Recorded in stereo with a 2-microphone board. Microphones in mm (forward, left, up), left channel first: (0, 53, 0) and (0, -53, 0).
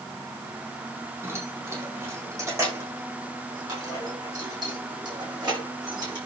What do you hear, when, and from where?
1.2 s keys jangling: 25° right (ahead or behind), 7.5 m; by 6.2 s 45° right (ahead or behind), 10 m